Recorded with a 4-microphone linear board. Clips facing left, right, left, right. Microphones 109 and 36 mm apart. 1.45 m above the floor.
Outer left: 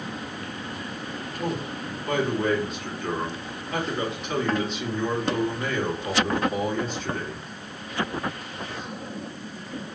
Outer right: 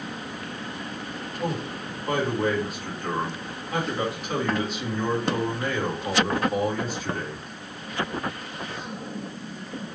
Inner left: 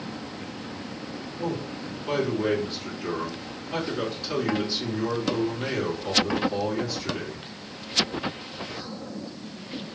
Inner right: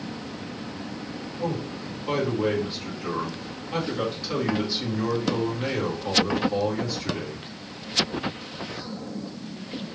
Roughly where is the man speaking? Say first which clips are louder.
Even, inner right 1 dB; centre.